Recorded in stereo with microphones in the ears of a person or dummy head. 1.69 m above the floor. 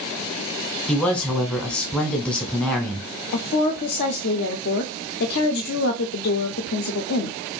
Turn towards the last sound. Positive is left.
turn(degrees=55)  # may be behind; listen again after turning